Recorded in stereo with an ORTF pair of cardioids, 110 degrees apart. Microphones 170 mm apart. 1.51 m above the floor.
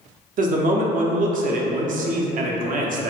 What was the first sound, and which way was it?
A man speaking, 55° right.